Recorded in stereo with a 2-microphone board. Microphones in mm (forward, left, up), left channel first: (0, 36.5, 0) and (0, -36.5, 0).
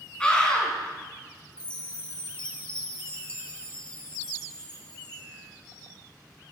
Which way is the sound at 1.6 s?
15° left (ahead or behind).